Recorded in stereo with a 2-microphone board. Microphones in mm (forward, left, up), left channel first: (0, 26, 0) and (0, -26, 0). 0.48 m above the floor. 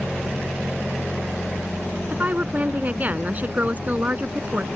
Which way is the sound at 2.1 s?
30° right (ahead or behind).